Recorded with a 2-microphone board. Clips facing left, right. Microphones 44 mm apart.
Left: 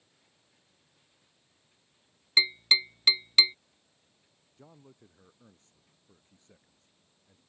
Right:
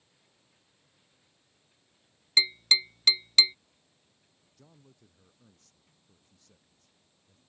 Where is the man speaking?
25° left (ahead or behind).